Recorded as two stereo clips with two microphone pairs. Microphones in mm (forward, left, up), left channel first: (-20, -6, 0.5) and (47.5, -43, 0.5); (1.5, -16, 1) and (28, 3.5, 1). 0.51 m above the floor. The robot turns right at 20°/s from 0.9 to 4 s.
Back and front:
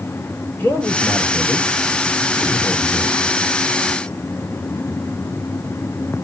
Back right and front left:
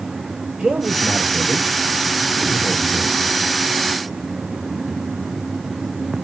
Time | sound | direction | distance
0.6 | a man speaking | 95° left | 2.0 m